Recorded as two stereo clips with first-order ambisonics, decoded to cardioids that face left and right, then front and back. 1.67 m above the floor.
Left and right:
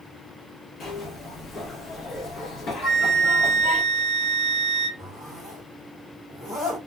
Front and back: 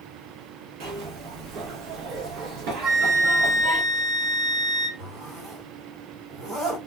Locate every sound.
0.8 s a zipper: 150° left, 0.8 m
2.8 s a flute: 150° left, 1.2 m
5.0 s a zipper: 160° left, 1.5 m